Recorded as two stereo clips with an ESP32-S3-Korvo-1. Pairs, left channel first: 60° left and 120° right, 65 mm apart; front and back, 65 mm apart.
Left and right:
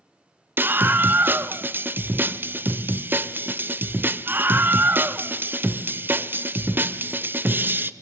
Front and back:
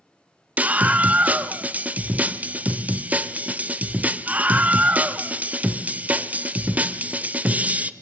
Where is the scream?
135° right, 0.9 m.